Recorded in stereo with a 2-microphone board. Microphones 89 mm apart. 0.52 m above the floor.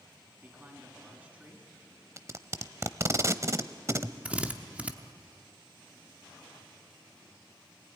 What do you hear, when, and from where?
0.4 s a man speaking: 20° right (ahead or behind), 4.5 m
2.2 s tape being pulled: 35° right (ahead or behind), 0.7 m
4.2 s a drill: 15° right (ahead or behind), 1.0 m